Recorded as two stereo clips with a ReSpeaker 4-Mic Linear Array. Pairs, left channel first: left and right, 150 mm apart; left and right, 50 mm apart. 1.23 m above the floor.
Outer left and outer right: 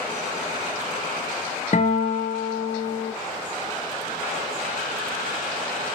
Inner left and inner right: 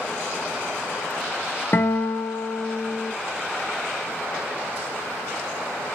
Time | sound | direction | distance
1.7 | a guitar | 50° left (ahead or behind) | 0.7 m